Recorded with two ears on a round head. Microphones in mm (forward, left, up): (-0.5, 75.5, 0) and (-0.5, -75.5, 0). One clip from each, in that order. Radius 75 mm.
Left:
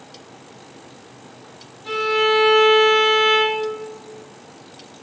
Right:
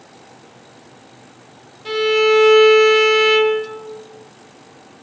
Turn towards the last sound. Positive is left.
turn(degrees=-45)  # may be behind; listen again after turning